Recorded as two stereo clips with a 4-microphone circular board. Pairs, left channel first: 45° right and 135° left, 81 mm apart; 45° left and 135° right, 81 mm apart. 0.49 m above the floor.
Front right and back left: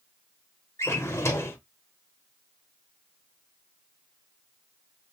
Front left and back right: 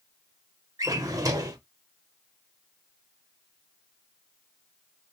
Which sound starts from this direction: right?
A drawer, at 0.8 s.